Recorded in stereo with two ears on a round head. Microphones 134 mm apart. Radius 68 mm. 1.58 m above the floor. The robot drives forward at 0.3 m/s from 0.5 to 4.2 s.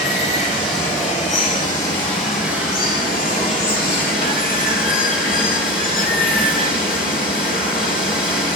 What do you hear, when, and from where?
0.0 s running water: 45° left (ahead or behind), 2.5 m; by 8.6 s 65° left (ahead or behind), 2 m